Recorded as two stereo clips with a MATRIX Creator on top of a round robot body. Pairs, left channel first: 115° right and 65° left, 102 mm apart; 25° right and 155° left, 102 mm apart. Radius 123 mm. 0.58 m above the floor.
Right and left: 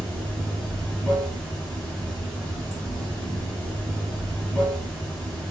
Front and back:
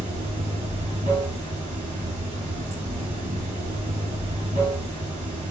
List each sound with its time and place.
0.0 s running water: 165° left, 0.8 m